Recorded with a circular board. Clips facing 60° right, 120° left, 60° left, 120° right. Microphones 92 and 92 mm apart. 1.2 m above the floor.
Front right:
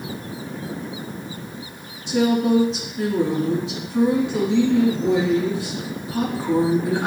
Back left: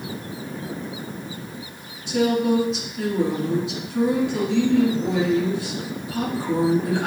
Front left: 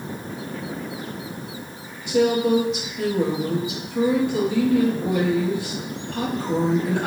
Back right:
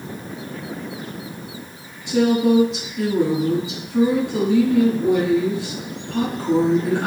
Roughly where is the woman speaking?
Behind right.